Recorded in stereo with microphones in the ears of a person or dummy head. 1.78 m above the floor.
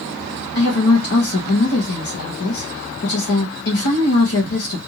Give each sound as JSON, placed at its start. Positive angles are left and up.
{"t": 0.6, "sound": "a woman speaking", "side_deg": 75, "distance_m": 1.0}